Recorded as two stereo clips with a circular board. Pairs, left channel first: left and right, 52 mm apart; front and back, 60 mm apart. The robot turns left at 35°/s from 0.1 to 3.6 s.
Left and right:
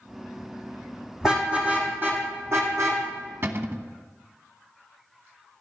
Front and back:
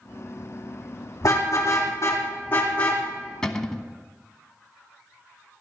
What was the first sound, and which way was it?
A car horn, 10° right.